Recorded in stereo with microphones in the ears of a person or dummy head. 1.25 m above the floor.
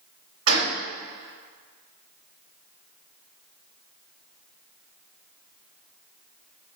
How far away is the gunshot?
About 3.5 m.